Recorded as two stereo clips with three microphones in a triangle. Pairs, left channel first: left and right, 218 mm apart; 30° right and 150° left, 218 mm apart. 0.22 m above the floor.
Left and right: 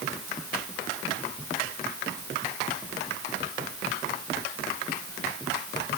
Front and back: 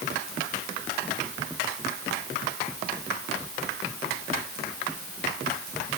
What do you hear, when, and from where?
Only background noise.